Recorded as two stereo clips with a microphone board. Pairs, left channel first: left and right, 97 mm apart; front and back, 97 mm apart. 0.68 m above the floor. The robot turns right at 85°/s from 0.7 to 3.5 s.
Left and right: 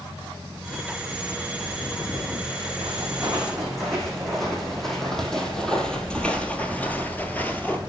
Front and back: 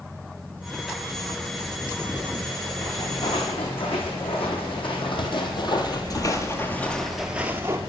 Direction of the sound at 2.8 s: 60° right.